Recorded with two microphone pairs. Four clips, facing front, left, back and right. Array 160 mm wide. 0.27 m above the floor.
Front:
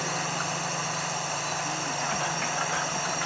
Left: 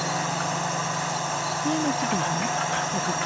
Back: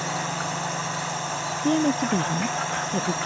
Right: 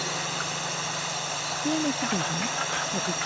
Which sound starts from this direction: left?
A drone, at 0.0 s.